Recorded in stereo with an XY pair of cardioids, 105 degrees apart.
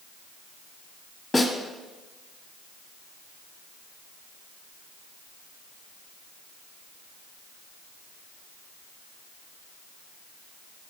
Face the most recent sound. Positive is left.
turn(degrees=20)